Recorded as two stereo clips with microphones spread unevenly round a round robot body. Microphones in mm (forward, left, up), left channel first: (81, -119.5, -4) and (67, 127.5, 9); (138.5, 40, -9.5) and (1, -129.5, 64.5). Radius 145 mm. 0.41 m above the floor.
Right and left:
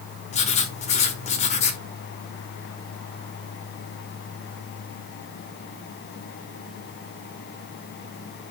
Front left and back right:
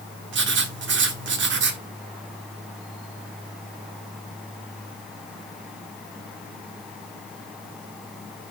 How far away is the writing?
About 1.5 m.